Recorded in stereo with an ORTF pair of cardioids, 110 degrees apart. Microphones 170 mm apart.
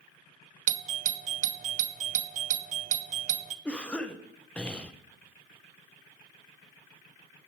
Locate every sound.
0.7 s a doorbell: 45° right, 0.6 m
3.6 s a cough: 5° left, 0.6 m